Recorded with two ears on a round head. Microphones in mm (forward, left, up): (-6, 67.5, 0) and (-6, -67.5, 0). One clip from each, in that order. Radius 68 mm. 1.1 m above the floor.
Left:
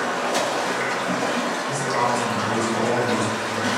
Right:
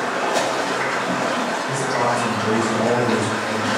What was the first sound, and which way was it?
Running water, 35° left (ahead or behind).